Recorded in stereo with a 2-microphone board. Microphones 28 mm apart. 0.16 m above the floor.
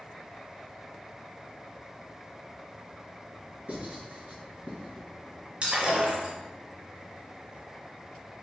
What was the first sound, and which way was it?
Writing, 55° right (ahead or behind).